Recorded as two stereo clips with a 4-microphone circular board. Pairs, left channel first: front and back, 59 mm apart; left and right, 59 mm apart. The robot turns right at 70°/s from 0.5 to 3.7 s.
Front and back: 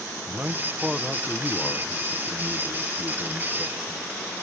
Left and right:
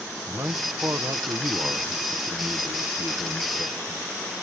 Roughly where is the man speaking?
Behind right.